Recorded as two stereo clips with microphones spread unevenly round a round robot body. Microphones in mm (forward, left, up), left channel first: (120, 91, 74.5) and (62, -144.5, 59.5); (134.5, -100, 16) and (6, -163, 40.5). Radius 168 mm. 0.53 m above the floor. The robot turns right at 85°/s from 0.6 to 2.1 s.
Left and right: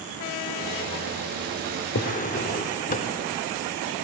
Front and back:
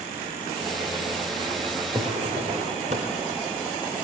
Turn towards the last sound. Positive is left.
turn(degrees=140)